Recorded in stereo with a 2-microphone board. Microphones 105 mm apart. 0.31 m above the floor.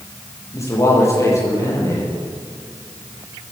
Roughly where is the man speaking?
Left.